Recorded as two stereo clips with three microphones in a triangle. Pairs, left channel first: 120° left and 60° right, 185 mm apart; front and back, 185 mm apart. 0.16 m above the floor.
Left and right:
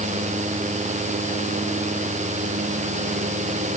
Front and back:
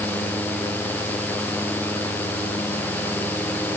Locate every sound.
Only background noise.